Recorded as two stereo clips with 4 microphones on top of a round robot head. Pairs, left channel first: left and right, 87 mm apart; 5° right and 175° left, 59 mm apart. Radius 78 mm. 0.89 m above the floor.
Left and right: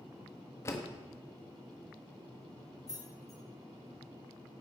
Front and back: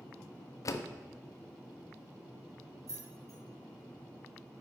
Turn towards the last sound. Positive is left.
turn(degrees=145)